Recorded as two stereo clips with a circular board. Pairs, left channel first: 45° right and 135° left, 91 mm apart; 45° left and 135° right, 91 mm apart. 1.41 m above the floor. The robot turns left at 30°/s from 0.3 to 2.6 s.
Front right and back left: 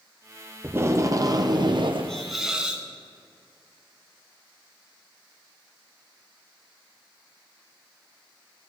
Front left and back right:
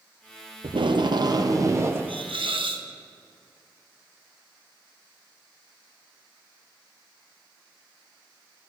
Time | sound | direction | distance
0.6 | tape being pulled | 160° right | 0.8 m
2.1 | a hiss | 130° right | 1.0 m